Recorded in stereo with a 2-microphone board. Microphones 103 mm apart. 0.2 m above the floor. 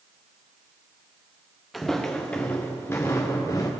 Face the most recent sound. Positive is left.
turn(degrees=30)  # may be behind; listen again after turning